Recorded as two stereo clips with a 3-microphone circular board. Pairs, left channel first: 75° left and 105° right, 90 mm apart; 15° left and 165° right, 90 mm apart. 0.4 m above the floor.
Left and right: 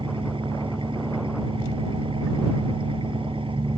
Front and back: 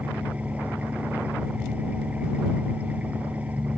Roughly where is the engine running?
Right.